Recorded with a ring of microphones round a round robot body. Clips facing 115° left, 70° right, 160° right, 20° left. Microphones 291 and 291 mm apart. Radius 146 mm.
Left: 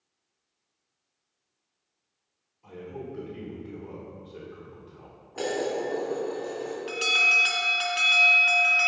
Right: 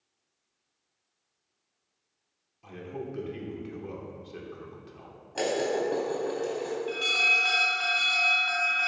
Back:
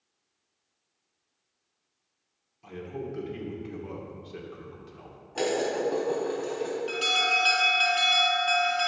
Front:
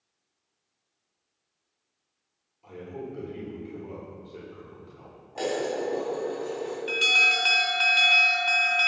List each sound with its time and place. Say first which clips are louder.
2.6 s a man speaking: right 1 dB, back 1 dB; 105° right, 2.5 m
5.3 s dishes clattering: right 1 dB, back 1 dB; 95° right, 3.5 m
6.9 s an alarm: even, back 1 dB; 95° left, 2 m